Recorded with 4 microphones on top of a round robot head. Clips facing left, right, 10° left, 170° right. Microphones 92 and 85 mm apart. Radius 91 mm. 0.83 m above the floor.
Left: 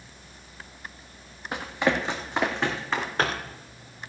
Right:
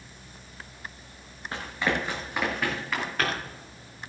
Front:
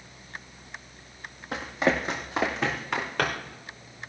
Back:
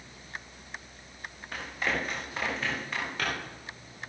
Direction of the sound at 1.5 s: 20° left.